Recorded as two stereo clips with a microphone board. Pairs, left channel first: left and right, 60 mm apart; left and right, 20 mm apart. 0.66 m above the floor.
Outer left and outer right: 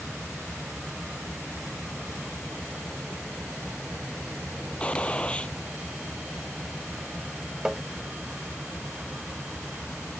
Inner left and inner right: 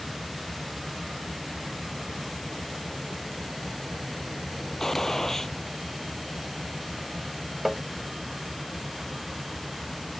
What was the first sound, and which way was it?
A vehicle, 10° right (ahead or behind).